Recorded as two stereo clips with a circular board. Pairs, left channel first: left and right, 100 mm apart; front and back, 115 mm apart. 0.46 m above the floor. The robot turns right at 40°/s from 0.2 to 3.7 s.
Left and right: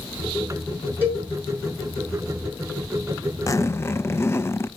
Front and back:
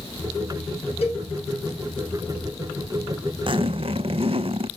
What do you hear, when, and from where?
1.0 s a cowbell: 20° right, 6 m; by 1.3 s 10° right, 6 m
3.5 s a zipper: 140° left, 0.5 m; by 4.7 s 150° left, 0.5 m